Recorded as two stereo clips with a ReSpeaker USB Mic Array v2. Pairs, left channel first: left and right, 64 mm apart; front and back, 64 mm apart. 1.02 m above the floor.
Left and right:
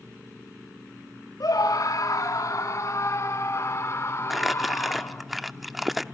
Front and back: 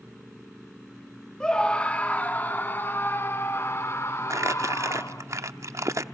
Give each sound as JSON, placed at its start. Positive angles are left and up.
{"t": 1.4, "sound": "a scream", "azimuth_deg": 75, "distance_m": 2.0}
{"t": 4.3, "sound": "crumpling", "azimuth_deg": 180, "distance_m": 0.7}